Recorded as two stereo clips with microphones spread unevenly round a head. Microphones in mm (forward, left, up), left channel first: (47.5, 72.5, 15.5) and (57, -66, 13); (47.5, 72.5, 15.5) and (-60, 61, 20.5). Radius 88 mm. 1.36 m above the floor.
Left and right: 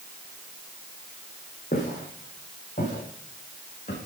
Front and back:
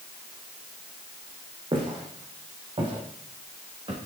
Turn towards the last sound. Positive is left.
turn(degrees=150)